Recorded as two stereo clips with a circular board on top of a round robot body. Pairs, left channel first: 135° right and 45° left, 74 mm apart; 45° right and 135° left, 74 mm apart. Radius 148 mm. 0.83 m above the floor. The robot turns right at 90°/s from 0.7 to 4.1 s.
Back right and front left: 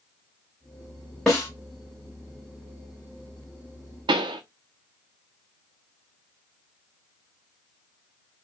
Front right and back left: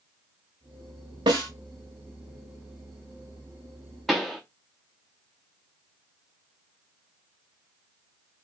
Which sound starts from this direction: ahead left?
A pop, at 4.1 s.